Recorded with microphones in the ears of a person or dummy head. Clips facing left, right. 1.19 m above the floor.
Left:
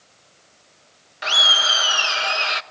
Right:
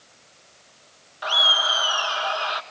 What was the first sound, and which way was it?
Laughter, 30° left (ahead or behind).